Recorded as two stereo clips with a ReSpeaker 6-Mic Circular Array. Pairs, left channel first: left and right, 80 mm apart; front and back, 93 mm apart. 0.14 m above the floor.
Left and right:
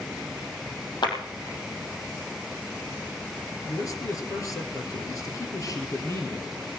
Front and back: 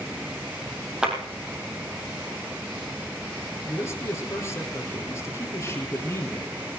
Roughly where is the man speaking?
Ahead left.